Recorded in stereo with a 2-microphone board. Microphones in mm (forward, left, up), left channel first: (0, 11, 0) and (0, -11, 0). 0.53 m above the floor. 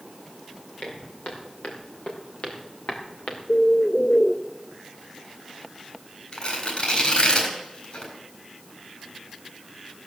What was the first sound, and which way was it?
Footsteps, 80° left.